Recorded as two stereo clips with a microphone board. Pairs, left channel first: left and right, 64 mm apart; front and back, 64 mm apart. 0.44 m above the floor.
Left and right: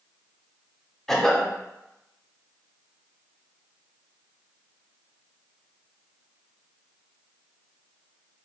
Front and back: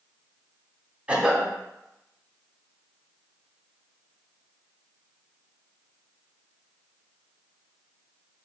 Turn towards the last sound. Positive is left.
turn(degrees=160)